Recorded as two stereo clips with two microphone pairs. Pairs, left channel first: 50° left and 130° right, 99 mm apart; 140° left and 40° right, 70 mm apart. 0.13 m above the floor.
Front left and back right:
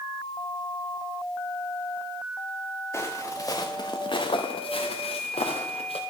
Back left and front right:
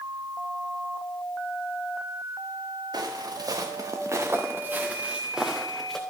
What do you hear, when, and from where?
2.9 s footsteps: 15° right, 1.4 m; by 6.0 s 55° left, 1.4 m